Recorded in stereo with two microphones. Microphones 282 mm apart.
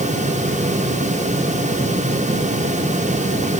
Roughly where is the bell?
I don't hear a bell.